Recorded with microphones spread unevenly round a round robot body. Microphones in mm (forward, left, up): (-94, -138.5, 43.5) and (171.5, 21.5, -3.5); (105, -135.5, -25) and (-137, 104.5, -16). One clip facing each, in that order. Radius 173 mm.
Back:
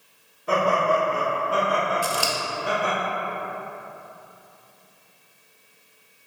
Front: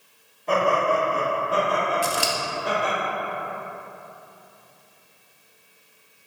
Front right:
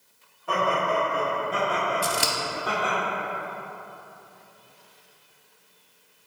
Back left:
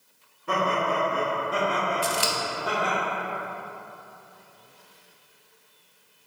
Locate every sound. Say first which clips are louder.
0.5 s laughter: even, even; 125° left, 1.1 m; by 3.0 s 40° left, 1.7 m
2.0 s scissors: front 1 dB, even; 35° right, 0.5 m